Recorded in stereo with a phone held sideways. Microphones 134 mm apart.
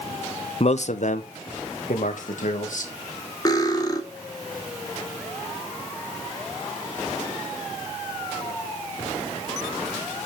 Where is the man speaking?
50° left (ahead or behind), 0.5 m; by 2.9 s 75° left (ahead or behind), 2 m.